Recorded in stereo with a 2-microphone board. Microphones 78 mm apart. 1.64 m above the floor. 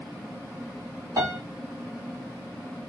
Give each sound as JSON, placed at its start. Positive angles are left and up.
{"t": 1.2, "sound": "a piano", "side_deg": -50, "distance_m": 2.5}